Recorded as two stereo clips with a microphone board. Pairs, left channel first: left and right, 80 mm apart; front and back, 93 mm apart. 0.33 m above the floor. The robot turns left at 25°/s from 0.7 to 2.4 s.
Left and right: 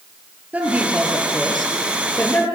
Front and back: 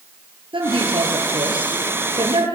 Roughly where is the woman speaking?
Behind.